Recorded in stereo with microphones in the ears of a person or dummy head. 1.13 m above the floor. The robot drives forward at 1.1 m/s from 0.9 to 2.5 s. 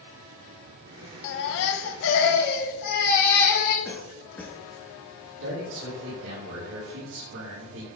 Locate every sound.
1.2 s a baby crying: 65° left (ahead or behind), 1.2 m; by 3.8 s 50° left (ahead or behind), 1.4 m
3.9 s a cough: 10° left (ahead or behind), 2 m
5.4 s a man speaking: 70° right (ahead or behind), 4 m